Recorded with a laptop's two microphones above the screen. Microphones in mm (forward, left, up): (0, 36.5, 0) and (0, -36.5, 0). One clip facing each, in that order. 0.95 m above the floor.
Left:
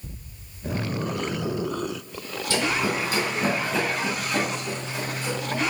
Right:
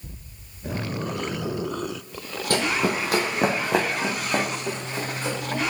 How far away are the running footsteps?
About 1.5 m.